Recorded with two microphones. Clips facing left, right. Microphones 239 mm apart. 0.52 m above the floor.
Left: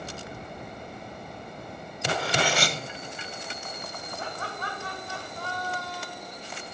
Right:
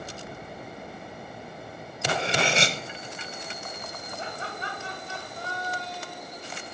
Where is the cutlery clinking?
25° right (ahead or behind), 0.9 m.